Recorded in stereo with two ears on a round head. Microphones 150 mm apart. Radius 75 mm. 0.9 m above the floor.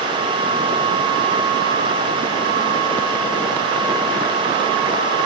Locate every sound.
Only background noise.